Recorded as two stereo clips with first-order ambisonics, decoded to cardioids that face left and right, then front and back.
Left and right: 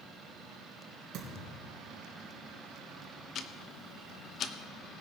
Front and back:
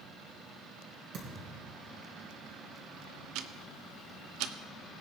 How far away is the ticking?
About 0.7 m.